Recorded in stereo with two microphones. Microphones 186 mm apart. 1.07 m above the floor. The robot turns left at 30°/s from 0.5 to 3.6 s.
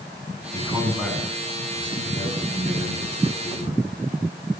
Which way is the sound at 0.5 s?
165° right.